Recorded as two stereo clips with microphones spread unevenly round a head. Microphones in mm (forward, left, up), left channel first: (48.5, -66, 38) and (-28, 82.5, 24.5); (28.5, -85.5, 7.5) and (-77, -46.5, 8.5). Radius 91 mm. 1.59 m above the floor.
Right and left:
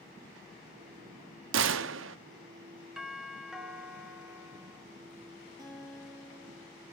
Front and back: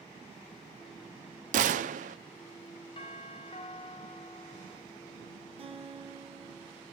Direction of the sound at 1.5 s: 135° left.